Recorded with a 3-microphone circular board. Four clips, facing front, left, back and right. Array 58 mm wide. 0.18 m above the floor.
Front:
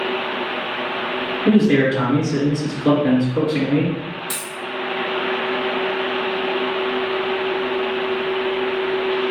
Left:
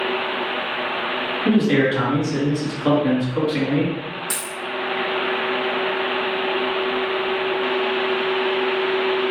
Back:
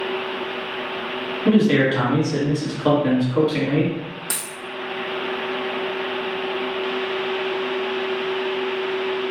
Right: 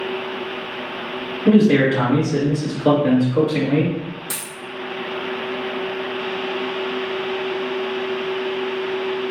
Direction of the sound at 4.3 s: 155° left.